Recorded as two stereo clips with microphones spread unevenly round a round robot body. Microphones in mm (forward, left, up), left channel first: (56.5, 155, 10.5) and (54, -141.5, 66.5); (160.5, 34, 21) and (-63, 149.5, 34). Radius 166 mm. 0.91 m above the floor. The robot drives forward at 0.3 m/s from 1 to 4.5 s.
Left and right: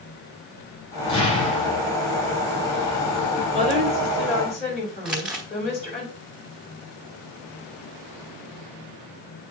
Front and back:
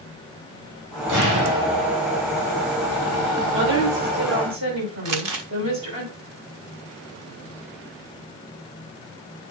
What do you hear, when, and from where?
1.1 s an explosion: 165° left, 4.5 m
3.5 s a woman speaking: 160° left, 5 m
5.0 s crumpling: 175° right, 0.8 m